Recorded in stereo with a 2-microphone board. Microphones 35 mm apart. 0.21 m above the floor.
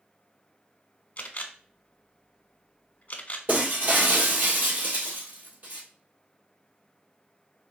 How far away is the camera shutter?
About 0.6 m.